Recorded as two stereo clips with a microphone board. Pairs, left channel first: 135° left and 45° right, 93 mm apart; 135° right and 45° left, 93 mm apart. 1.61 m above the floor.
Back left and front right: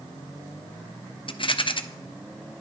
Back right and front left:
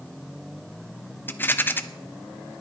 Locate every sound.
1.3 s a rattle: 160° left, 0.6 m